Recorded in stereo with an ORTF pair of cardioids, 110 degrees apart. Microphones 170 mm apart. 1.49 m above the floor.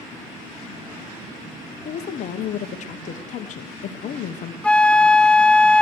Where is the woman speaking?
50° left, 0.9 m.